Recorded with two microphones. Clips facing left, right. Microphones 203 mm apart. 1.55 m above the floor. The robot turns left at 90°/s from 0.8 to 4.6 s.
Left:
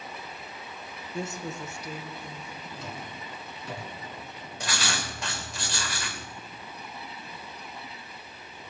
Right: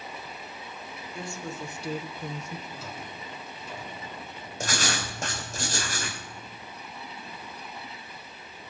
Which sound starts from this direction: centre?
A drawer, at 2.7 s.